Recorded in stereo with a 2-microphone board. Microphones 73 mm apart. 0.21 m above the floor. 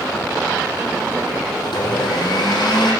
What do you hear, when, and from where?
1.6 s a blender: 80° left, 4.5 m